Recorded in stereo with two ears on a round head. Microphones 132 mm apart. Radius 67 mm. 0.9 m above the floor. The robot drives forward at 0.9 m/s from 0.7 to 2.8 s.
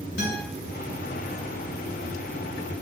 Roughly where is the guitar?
Left.